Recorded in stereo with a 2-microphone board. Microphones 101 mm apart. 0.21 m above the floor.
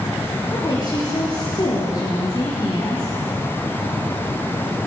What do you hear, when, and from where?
0.5 s a woman speaking: 40° left (ahead or behind), 4.5 m